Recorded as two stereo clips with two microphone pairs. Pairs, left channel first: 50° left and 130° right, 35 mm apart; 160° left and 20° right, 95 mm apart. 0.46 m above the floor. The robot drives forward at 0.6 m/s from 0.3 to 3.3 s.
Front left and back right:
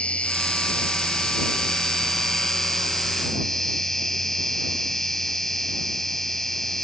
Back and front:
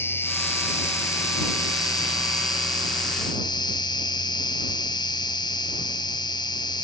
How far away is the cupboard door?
No cupboard door in this recording.